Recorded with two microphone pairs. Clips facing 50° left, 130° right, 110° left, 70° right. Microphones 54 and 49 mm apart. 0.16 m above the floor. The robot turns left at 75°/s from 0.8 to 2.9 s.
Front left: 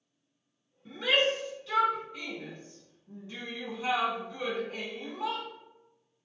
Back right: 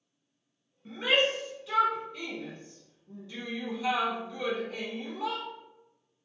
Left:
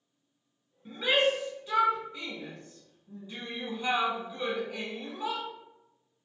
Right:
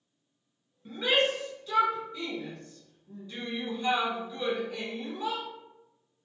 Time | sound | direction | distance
0.8 | a shout | 150° right | 1.4 m